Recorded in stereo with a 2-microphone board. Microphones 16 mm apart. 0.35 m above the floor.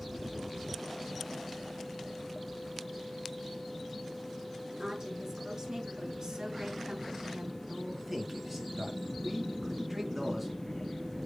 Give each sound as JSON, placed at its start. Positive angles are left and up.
{"t": 4.7, "sound": "a woman speaking", "side_deg": -40, "distance_m": 5.5}
{"t": 7.7, "sound": "a man speaking", "side_deg": -15, "distance_m": 3.5}